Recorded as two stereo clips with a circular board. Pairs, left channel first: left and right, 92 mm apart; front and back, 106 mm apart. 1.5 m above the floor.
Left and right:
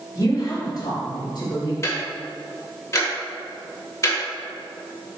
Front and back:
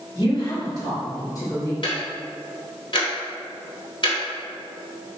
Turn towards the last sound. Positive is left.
turn(degrees=40)